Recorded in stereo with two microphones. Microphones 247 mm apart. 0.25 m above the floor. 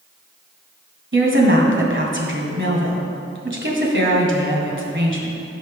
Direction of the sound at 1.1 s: 45° right (ahead or behind).